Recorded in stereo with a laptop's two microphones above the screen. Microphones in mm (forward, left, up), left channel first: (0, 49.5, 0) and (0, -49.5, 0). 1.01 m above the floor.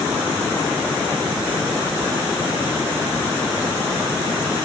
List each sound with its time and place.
Only background noise.